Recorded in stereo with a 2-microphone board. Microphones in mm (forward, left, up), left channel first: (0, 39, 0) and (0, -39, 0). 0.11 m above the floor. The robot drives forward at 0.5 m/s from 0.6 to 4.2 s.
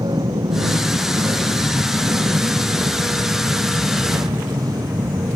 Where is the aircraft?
70° right (ahead or behind); by 5.4 s 50° right (ahead or behind).